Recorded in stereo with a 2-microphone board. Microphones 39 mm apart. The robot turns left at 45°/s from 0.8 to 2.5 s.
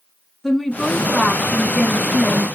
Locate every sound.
0.4 s a woman speaking: 10° left (ahead or behind), 1.1 m; by 2.5 s 25° left (ahead or behind), 1.1 m